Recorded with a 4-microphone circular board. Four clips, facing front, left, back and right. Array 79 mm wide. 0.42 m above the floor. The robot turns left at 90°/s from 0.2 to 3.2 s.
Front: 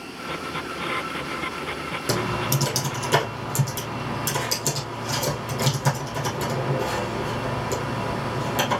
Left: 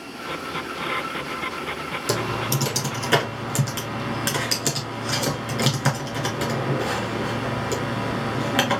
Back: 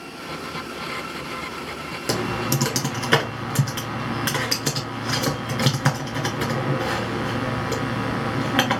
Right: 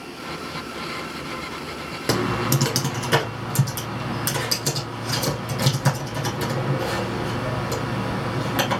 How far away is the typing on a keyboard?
About 1.5 m.